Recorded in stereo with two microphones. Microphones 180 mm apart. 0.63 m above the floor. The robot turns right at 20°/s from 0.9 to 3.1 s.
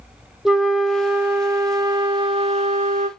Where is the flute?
Straight behind, 0.5 m; by 3.1 s 135° right, 0.5 m.